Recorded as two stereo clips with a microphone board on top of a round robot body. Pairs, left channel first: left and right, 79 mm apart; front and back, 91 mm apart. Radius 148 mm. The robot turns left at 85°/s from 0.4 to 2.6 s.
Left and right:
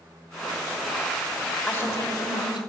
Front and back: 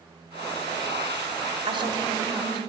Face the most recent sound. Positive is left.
turn(degrees=80)